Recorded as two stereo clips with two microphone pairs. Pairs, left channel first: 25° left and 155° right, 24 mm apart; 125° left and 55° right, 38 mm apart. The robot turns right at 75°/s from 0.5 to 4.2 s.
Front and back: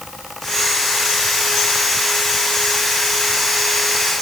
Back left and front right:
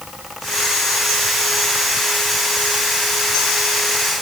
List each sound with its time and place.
Only background noise.